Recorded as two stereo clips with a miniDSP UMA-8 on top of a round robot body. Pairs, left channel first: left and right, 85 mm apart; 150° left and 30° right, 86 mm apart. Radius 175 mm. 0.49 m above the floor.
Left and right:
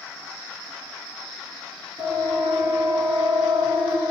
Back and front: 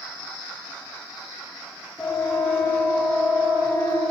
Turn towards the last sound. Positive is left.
turn(degrees=-145)